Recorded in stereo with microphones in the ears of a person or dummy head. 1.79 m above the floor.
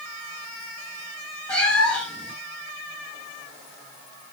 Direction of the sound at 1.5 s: 10° left (ahead or behind).